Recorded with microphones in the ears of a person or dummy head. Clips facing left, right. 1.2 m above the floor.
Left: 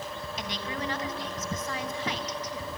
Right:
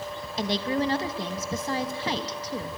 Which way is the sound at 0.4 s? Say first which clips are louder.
Right 11 dB; 30° right (ahead or behind).